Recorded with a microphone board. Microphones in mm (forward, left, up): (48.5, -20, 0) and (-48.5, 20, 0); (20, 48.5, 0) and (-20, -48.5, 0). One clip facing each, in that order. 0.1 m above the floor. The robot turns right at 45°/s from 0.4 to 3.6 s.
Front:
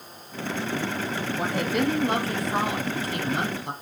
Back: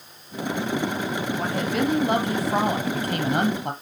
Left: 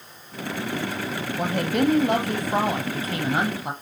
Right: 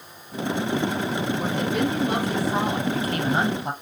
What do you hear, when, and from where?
1.4 s a woman speaking: 55° left, 2.5 m; by 3.7 s 150° left, 2.5 m